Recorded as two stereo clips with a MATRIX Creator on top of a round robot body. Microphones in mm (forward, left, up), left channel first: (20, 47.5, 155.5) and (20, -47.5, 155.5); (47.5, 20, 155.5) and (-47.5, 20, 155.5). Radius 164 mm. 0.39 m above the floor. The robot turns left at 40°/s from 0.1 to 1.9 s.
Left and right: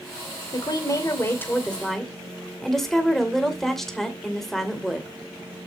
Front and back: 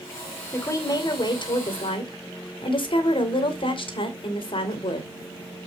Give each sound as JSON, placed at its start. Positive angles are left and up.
{"t": 0.5, "sound": "a woman speaking", "azimuth_deg": 60, "distance_m": 2.5}